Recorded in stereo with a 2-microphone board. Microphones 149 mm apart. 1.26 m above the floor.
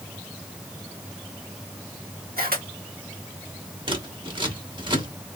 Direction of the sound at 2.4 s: 80° right.